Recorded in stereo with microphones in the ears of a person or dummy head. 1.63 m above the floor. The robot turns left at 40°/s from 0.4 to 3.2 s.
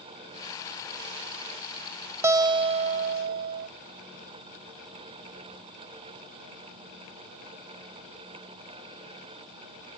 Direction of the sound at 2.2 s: 20° right.